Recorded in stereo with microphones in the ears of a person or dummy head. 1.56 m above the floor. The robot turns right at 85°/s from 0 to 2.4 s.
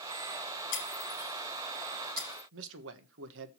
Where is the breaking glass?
60° left (ahead or behind), 6 m; by 2.4 s 70° right (ahead or behind), 6 m.